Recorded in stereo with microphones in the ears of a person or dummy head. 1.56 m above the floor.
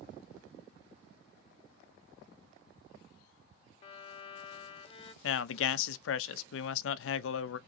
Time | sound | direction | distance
3.8 | a violin | 35° left (ahead or behind) | 0.6 m
5.2 | a man speaking | 80° left | 0.5 m